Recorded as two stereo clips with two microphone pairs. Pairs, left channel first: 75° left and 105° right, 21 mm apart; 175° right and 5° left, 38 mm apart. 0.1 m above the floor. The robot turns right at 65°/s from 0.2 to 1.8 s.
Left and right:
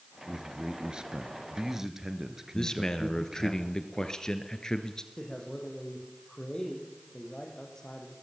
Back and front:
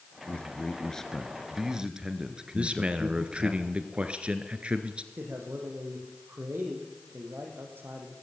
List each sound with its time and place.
0.3 s a man speaking: 150° right, 2 m; by 3.5 s 50° right, 2 m
2.5 s a man speaking: 40° left, 1.7 m
5.2 s a man speaking: 15° left, 5 m